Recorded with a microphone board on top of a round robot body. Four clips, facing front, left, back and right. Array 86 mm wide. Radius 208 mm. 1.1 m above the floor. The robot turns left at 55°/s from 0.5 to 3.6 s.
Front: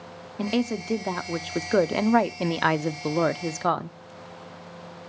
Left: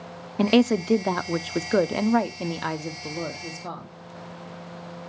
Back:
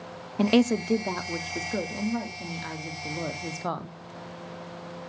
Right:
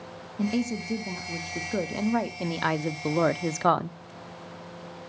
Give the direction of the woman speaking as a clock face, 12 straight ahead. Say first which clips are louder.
Left 9 dB, back 4 dB; 8 o'clock.